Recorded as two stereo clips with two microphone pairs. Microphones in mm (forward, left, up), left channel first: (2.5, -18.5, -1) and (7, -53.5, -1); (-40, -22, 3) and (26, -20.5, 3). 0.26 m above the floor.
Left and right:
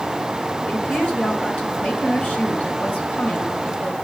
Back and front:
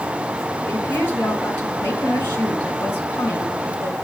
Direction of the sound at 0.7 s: 125° left.